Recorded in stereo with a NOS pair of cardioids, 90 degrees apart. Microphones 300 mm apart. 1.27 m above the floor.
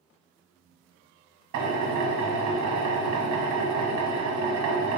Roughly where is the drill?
Right.